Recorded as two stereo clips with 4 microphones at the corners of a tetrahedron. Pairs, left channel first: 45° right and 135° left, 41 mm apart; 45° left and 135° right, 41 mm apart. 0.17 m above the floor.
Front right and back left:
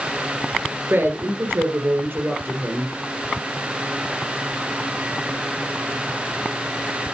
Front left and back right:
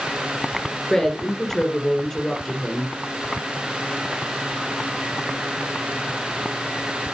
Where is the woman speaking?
125° left, 2 m.